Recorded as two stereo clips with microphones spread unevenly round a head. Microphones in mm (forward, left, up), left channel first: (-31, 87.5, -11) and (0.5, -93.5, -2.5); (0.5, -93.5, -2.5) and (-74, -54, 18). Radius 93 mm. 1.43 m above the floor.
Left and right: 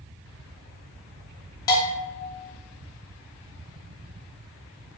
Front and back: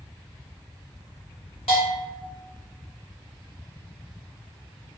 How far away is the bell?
About 0.7 m.